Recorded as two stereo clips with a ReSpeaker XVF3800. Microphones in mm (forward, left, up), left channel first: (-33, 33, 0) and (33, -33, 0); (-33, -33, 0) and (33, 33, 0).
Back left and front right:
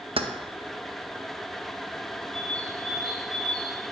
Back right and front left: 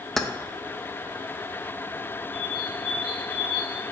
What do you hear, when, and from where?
0.2 s keys jangling: 50° right, 0.5 m
2.3 s a bird: 55° left, 1.3 m